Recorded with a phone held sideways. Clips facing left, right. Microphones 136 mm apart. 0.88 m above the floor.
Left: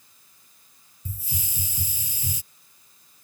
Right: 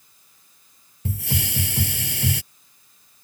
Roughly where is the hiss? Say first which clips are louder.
Right 11 dB; right.